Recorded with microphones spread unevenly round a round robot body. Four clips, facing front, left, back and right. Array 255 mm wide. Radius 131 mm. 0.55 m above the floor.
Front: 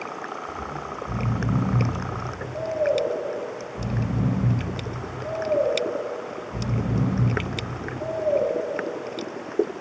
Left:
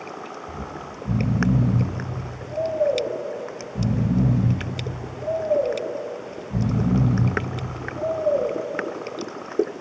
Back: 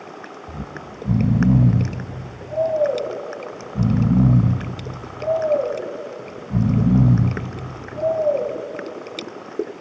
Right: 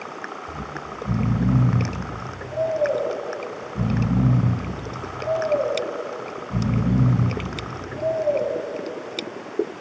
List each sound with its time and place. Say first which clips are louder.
0.5 s snoring: right 1 dB, front 2 dB; straight behind, 1.9 m